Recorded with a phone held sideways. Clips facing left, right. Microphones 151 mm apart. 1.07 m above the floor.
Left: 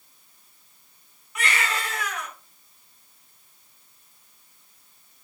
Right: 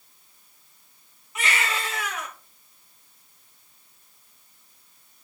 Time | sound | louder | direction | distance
1.4 | a baby crying | even | 25° right (ahead or behind) | 4 m